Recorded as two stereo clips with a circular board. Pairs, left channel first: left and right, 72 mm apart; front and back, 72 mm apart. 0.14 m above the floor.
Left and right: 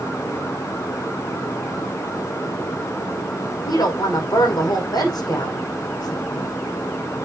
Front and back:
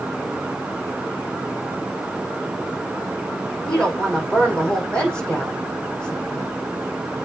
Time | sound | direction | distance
3.6 | a woman speaking | 80° left | 5.5 m